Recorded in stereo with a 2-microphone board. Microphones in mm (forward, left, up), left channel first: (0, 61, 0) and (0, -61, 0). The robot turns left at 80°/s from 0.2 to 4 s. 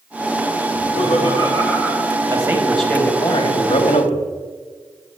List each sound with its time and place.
0.7 s laughter: 95° left, 7 m; by 2.1 s 20° right, 7 m
2.3 s a man speaking: 140° right, 3 m; by 4.4 s 85° left, 3 m